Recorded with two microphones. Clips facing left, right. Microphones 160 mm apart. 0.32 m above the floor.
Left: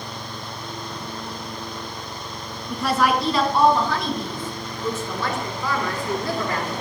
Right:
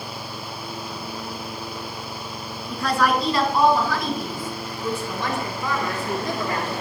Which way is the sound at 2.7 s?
5° left (ahead or behind).